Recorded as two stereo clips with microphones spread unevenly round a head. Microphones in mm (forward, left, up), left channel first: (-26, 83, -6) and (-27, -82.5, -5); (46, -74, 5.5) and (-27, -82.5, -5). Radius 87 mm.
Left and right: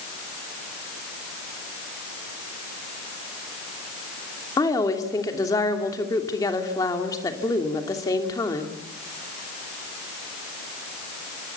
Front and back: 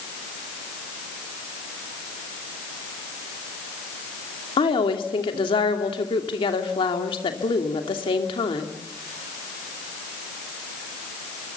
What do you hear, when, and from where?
4.6 s a woman speaking: 15° left, 3 m